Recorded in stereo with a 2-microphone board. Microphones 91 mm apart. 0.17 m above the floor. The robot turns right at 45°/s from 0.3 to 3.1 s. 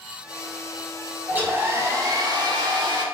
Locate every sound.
1.3 s a hair dryer: 155° right, 0.7 m; by 3.0 s 75° right, 0.7 m